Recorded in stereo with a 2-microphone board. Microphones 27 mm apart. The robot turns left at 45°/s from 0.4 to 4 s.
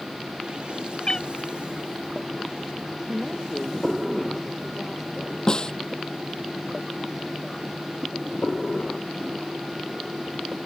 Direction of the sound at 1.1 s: 35° left (ahead or behind).